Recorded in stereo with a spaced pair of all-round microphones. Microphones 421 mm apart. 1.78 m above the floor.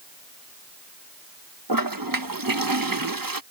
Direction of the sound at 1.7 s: 50° right (ahead or behind).